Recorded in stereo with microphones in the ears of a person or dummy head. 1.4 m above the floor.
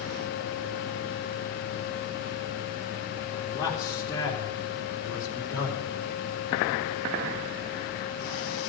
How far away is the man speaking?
About 3.5 m.